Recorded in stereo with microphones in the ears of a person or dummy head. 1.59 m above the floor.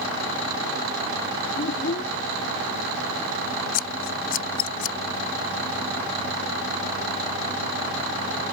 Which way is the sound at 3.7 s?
45° left (ahead or behind).